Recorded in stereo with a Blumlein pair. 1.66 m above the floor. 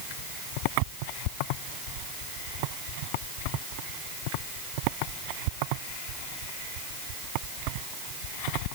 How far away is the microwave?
I don't hear a microwave.